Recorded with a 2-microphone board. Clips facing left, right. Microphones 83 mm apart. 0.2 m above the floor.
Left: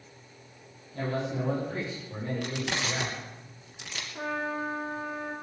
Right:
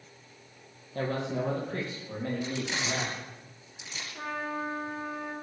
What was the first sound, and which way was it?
A man speaking, 55° right (ahead or behind).